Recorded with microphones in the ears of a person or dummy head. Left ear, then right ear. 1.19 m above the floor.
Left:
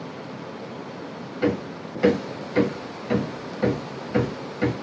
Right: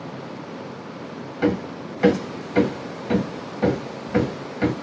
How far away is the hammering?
About 0.8 m.